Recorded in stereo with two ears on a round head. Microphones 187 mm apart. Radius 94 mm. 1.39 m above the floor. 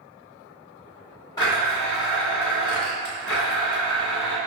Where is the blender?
20° left (ahead or behind), 1.9 m.